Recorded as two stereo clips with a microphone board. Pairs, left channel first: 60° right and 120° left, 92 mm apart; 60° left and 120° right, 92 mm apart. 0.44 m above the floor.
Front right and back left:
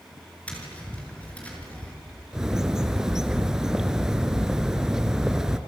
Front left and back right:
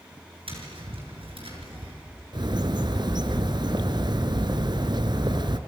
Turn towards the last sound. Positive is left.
turn(degrees=-155)